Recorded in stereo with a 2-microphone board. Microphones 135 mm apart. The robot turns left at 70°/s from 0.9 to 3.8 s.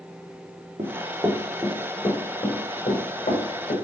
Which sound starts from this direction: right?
Running footsteps, at 0.8 s.